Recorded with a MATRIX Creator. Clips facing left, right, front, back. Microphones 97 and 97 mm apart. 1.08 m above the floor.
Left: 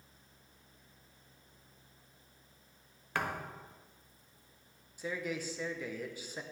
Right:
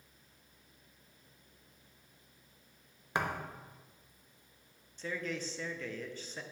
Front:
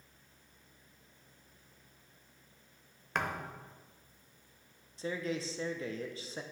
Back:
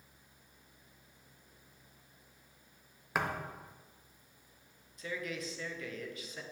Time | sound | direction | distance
3.1 | a thud | 105° right | 0.8 m
5.0 | a man speaking | 20° left | 0.7 m